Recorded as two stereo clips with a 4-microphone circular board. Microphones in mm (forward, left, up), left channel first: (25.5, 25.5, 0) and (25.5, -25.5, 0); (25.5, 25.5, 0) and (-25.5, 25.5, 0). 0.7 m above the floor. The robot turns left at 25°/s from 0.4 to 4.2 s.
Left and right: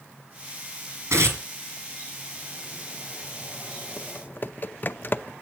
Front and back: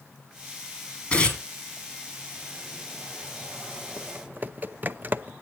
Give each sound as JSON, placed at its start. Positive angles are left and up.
{"t": 1.1, "sound": "tearing paper", "azimuth_deg": -65, "distance_m": 3.5}
{"t": 4.0, "sound": "typing on a keyboard", "azimuth_deg": 135, "distance_m": 0.5}